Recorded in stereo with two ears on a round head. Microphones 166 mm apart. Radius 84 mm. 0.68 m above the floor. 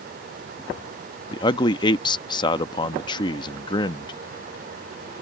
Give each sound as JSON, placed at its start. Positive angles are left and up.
{"t": 1.3, "sound": "a man speaking", "side_deg": 25}